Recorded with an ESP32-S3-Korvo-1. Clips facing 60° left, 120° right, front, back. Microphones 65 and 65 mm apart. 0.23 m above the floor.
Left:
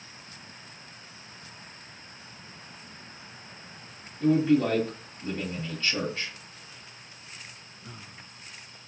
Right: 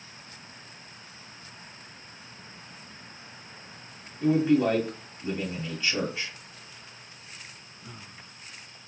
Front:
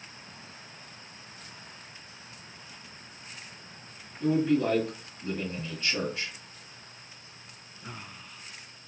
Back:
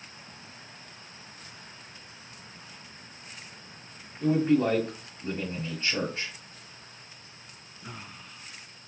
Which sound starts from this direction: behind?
A man speaking, at 4.2 s.